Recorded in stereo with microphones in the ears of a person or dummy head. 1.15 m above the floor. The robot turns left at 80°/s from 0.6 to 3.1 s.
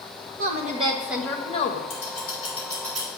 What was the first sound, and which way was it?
A woman speaking, 135° right.